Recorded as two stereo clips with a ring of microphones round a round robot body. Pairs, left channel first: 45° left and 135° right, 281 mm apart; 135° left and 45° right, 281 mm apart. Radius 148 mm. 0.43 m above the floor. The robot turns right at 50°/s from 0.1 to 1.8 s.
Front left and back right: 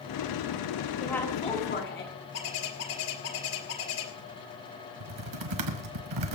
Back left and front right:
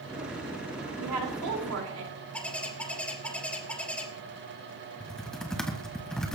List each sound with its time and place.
1.0 s a woman speaking: 45° right, 4 m; by 2.1 s 5° right, 4 m
2.3 s a bird: 50° left, 2 m
5.0 s typing on a keyboard: 135° right, 1.5 m